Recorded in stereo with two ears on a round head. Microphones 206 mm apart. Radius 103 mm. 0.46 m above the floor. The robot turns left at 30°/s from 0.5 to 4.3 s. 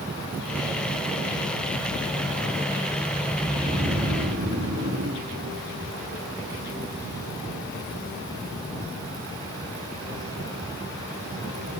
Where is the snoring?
15° right (ahead or behind), 2 m; by 5.3 s 35° right (ahead or behind), 2 m.